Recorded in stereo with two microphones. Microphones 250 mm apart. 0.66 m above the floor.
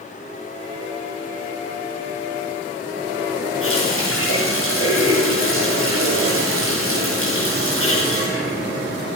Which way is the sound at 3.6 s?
60° left (ahead or behind).